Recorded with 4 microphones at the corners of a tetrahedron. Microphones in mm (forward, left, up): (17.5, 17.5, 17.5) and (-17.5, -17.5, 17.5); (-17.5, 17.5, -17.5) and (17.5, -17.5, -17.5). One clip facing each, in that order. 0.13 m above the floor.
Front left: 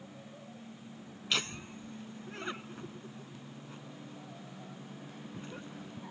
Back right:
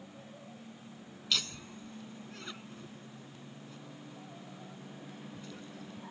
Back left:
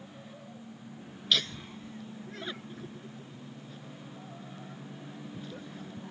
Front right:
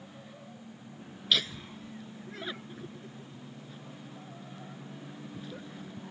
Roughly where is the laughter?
Ahead left.